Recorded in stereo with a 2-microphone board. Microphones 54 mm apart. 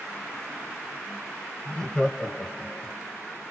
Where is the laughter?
10° left (ahead or behind), 1.1 m.